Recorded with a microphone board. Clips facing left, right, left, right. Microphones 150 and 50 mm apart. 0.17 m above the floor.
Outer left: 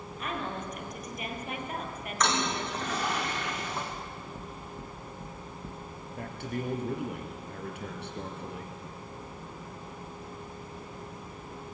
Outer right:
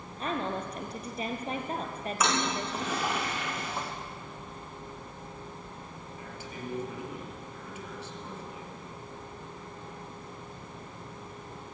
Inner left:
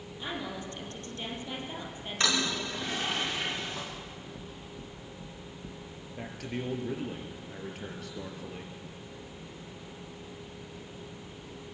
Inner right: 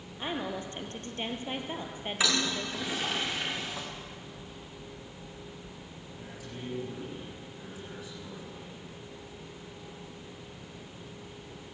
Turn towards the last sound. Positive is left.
turn(degrees=60)  # may be behind; listen again after turning